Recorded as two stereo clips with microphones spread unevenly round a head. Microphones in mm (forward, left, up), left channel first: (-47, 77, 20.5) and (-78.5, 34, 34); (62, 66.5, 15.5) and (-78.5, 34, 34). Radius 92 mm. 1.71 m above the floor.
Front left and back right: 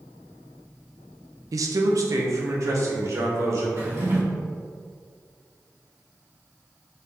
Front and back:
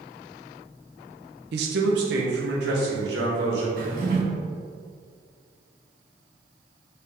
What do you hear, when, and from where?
1.5 s a man speaking: 145° right, 0.5 m; by 3.7 s 150° right, 1.7 m
3.8 s a drawer: 135° right, 1.7 m